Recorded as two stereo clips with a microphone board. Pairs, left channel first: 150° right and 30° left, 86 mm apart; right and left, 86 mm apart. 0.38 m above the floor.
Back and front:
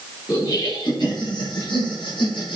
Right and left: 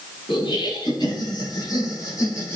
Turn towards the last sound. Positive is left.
turn(degrees=-150)